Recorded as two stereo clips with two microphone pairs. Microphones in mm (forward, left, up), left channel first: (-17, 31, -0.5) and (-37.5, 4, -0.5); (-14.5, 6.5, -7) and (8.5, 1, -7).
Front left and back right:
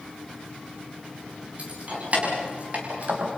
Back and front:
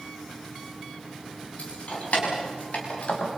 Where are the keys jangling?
175° right, 6.5 m; by 3.3 s 170° right, 5 m.